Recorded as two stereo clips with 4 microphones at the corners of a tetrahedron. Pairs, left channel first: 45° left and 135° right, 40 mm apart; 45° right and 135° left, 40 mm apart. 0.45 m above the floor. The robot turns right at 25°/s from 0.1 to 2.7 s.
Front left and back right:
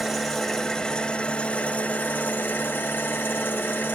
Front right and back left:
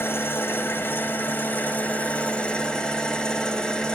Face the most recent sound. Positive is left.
turn(degrees=20)